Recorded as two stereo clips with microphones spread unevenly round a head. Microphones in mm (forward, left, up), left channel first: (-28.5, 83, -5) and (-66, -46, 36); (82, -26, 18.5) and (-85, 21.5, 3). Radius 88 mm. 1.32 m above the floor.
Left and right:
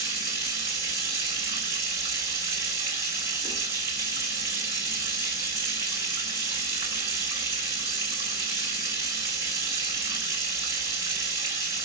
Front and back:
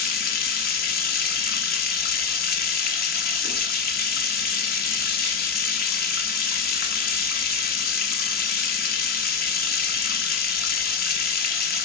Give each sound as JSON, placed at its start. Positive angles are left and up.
{"t": 0.0, "sound": "running water", "azimuth_deg": -45, "distance_m": 1.0}